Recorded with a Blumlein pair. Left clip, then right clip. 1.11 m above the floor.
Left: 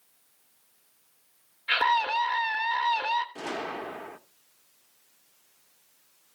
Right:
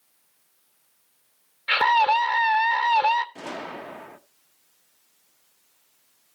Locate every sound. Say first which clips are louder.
1.7 s a scream: right 5 dB; 20° right, 0.7 m
3.4 s a gunshot: left 1 dB; straight ahead, 0.6 m